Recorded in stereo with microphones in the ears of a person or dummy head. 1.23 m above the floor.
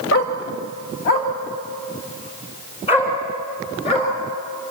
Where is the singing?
I don't hear singing.